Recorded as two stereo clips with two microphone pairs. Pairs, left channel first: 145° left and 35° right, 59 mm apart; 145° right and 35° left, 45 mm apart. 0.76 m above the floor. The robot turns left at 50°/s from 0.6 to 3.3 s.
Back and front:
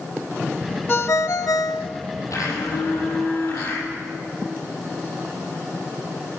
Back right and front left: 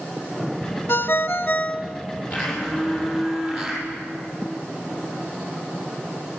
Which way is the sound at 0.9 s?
155° right.